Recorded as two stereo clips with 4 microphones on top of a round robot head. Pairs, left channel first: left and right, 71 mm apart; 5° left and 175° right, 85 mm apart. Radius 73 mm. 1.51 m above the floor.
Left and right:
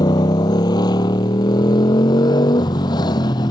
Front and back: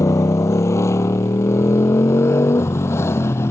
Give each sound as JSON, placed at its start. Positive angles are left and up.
{"t": 0.0, "sound": "a motorcycle", "azimuth_deg": 60}